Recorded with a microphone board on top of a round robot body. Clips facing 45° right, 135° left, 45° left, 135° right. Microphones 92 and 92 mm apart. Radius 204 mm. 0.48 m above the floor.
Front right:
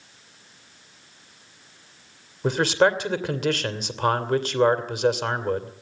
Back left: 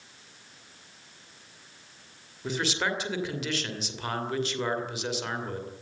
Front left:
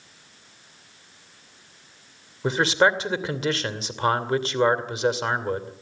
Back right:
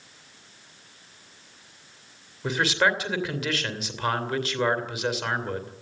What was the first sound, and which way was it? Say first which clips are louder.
A man speaking: front right 10 dB, front left 4 dB; 10° right.